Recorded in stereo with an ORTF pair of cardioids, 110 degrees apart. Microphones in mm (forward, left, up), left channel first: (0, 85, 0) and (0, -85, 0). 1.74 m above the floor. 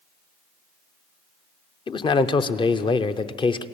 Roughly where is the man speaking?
Ahead left.